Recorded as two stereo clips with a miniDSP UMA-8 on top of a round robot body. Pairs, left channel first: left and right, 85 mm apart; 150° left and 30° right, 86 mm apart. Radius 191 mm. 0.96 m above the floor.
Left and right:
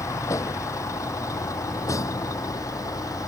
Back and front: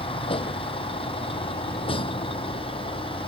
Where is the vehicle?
145° left; by 3.3 s 140° left.